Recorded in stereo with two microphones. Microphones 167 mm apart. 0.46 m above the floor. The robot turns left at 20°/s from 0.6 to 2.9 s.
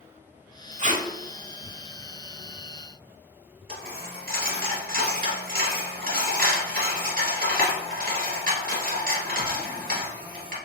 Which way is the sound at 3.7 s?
60° right (ahead or behind).